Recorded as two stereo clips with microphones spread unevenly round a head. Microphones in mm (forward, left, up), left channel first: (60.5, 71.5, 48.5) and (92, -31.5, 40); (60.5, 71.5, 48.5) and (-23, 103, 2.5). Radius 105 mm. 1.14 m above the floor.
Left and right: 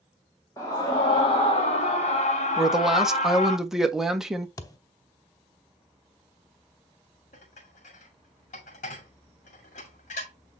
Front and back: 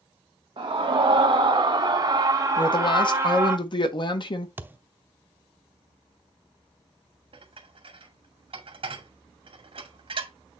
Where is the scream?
Straight behind, 1.4 m; by 3.6 s 100° left, 2 m.